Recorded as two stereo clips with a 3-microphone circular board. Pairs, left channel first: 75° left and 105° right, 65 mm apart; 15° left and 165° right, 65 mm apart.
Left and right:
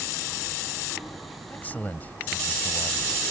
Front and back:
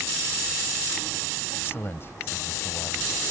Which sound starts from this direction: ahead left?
A man speaking, at 1.5 s.